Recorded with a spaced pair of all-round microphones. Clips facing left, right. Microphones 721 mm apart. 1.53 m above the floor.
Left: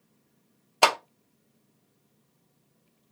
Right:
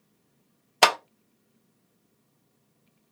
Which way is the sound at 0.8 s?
50° right (ahead or behind).